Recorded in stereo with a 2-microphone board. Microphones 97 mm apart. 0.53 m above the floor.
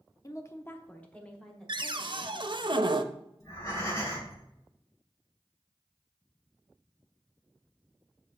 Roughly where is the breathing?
Left.